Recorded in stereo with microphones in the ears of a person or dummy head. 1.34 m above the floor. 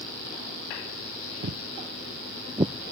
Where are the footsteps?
50° right (ahead or behind); by 2.7 s 20° right (ahead or behind).